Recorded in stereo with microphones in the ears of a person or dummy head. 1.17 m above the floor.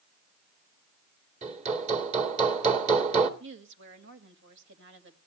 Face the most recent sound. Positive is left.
turn(degrees=-60)  # may be behind; listen again after turning